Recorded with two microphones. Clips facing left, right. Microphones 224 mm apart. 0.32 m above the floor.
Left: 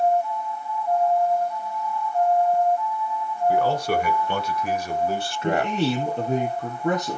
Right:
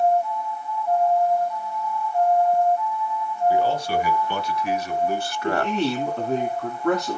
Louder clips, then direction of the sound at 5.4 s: Left 1 dB; 15° left (ahead or behind).